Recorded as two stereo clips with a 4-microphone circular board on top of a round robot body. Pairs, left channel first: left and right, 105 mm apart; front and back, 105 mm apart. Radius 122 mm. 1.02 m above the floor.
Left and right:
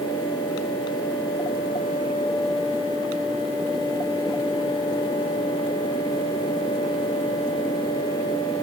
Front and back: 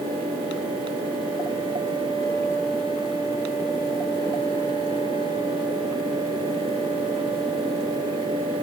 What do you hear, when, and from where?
Only background noise.